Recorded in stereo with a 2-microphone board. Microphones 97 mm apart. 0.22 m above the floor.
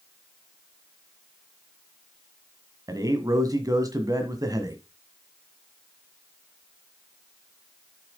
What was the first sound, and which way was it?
A man speaking, 40° right (ahead or behind).